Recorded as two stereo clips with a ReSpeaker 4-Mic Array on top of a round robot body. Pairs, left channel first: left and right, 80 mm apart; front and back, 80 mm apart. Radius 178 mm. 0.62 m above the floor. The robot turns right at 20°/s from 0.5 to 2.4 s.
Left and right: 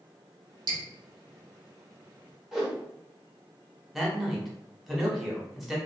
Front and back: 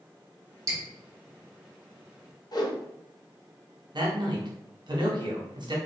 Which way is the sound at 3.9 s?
175° right.